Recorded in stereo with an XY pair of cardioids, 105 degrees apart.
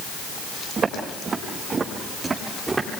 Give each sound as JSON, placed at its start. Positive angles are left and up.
{"t": 0.8, "sound": "footsteps", "azimuth_deg": -40, "distance_m": 7.5}